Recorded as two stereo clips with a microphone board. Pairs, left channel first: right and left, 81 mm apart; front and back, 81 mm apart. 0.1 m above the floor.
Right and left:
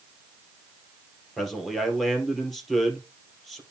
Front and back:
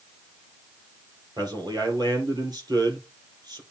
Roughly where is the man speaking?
Behind.